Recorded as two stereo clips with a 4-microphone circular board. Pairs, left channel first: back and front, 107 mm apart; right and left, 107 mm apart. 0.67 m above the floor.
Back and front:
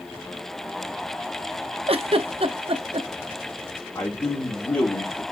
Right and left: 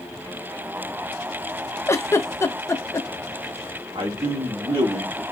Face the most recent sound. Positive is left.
turn(degrees=125)